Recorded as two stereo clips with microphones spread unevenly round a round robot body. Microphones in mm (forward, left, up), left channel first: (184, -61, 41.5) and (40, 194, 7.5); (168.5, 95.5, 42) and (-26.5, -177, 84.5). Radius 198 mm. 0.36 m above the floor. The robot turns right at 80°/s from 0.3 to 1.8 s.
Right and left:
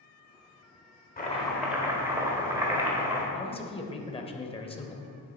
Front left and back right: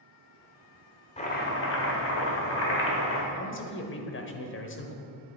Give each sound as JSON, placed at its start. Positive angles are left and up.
{"t": 1.2, "sound": "chopping", "azimuth_deg": -5, "distance_m": 1.8}
{"t": 3.3, "sound": "a man speaking", "azimuth_deg": 15, "distance_m": 1.3}